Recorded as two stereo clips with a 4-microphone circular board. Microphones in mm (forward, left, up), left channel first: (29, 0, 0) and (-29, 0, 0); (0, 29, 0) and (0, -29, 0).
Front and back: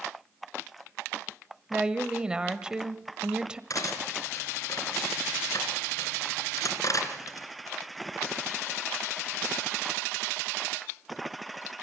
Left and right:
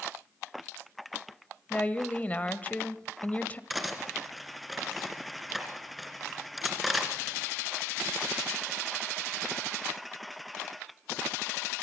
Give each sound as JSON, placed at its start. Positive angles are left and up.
{"t": 1.7, "sound": "a woman speaking", "azimuth_deg": 120, "distance_m": 1.0}
{"t": 3.7, "sound": "cutlery clinking", "azimuth_deg": 0, "distance_m": 2.5}